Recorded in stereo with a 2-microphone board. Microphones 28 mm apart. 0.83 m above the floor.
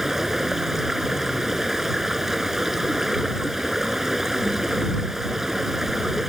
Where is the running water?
15° right (ahead or behind).